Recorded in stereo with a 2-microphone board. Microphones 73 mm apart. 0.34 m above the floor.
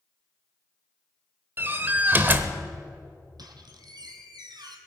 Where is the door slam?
30° right (ahead or behind), 0.7 m.